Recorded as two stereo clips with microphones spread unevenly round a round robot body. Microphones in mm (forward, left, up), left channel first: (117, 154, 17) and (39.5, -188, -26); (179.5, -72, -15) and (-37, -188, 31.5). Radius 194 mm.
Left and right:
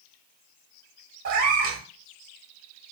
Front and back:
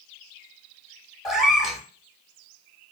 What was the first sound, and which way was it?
A cat meowing, 60° right.